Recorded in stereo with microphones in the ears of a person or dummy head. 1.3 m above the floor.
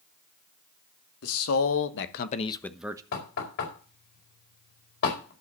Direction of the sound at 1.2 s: 85° left.